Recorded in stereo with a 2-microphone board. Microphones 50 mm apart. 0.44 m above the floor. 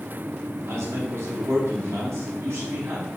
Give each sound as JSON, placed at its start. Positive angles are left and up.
{"t": 0.7, "sound": "a man speaking", "side_deg": -70, "distance_m": 3.5}